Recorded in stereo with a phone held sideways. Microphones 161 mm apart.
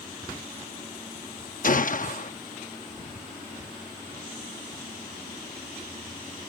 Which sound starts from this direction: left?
A gunshot, at 1.6 s.